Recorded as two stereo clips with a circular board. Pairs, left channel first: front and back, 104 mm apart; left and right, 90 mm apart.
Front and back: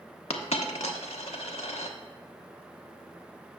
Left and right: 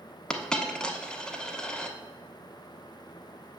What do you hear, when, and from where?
0.3 s a dropped coin: 10° left, 0.7 m